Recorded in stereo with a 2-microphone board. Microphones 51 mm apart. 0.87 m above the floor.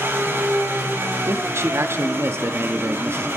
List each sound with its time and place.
0.0 s an engine running: 55° right (ahead or behind), 8 m
1.3 s a man speaking: 60° right (ahead or behind), 1.2 m